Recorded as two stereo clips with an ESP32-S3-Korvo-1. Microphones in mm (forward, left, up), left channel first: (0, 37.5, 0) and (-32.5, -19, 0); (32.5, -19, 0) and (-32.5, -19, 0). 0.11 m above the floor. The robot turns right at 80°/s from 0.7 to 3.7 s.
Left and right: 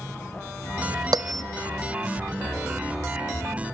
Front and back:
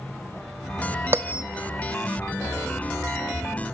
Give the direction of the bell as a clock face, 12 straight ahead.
4 o'clock.